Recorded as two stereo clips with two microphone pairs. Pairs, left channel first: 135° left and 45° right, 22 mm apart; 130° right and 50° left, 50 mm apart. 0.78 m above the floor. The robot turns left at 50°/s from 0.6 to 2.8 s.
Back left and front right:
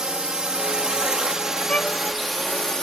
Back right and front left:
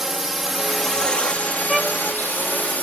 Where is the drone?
30° right; by 2.8 s 175° right.